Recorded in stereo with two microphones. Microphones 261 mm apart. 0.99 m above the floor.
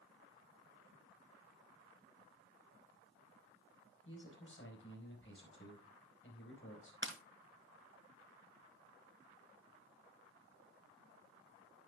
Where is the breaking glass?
45° right (ahead or behind), 1.4 m.